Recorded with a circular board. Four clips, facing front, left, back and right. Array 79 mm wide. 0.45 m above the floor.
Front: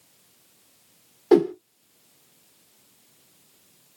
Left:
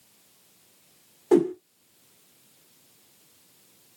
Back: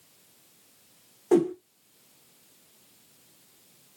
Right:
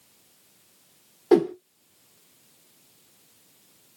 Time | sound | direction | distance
1.3 | a whoosh | 40° right | 0.6 m